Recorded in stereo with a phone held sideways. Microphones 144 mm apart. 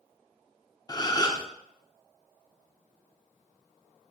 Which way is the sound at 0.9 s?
30° left (ahead or behind).